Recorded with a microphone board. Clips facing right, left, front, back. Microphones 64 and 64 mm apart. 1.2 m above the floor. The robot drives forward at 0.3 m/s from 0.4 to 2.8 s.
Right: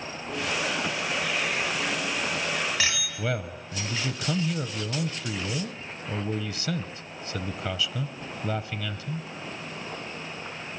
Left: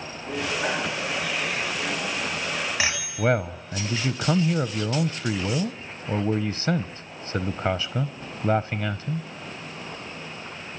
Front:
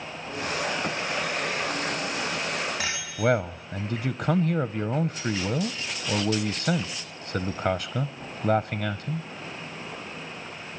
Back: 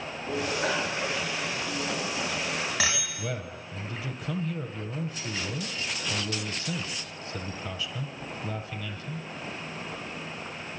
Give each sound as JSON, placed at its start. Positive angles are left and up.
{"t": 0.3, "sound": "a bicycle bell", "azimuth_deg": 160, "distance_m": 3.0}
{"t": 3.2, "sound": "a man speaking", "azimuth_deg": 40, "distance_m": 0.5}